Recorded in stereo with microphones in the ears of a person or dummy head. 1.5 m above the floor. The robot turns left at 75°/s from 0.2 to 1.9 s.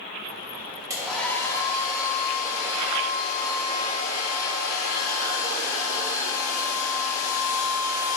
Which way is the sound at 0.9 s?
165° right.